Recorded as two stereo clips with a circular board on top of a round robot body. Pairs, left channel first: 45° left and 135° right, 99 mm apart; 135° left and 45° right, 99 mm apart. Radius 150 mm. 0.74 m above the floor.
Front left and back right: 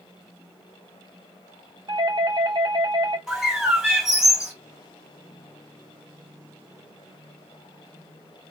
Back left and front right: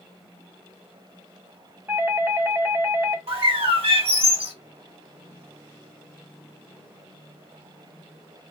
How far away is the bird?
About 3 m.